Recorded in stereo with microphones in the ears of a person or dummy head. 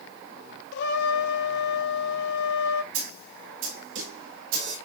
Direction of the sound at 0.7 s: 65° left (ahead or behind).